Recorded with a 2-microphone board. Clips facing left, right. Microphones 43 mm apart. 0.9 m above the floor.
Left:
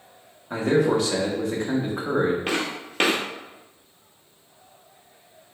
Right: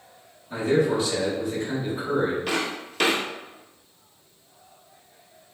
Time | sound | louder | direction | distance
0.5 | a man speaking | left 1 dB | 75° left (ahead or behind) | 1.0 m
2.5 | footsteps | left 1 dB | 35° left (ahead or behind) | 1.0 m